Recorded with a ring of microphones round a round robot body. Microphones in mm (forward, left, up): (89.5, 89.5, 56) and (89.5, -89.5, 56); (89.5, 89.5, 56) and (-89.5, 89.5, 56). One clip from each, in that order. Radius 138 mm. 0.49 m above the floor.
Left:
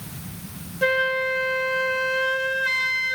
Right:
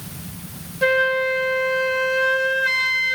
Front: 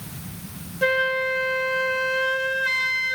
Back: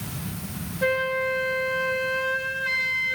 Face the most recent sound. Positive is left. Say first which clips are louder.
# right 3 dB, front 3 dB
turn(degrees=5)